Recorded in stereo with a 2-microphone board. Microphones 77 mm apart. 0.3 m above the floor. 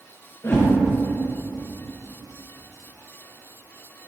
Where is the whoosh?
35° left (ahead or behind), 2 m.